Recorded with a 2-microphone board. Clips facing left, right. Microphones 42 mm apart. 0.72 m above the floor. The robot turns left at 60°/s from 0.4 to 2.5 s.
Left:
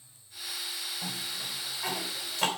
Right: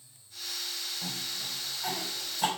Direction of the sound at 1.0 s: 5° left (ahead or behind).